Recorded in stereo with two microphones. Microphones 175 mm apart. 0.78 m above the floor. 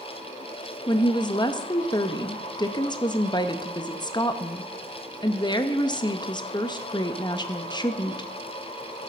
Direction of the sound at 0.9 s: 25° left (ahead or behind).